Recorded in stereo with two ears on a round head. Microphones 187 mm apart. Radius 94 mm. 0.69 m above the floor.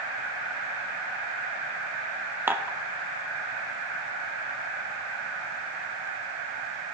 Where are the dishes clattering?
10° right (ahead or behind), 0.8 m.